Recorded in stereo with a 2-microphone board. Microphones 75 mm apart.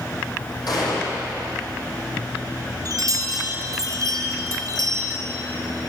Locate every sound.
0.7 s a gunshot: 65° left (ahead or behind), 6 m
2.9 s a chime: 50° right (ahead or behind), 2.5 m